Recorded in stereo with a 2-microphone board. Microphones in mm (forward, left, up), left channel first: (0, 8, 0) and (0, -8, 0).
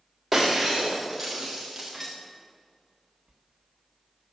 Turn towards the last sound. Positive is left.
turn(degrees=-40)  # may be behind; listen again after turning